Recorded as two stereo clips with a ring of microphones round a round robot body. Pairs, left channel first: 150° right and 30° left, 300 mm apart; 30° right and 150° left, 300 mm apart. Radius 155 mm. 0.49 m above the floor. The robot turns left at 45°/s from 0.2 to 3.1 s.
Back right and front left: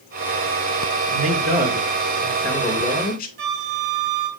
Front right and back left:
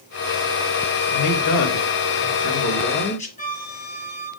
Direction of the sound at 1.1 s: 5° right.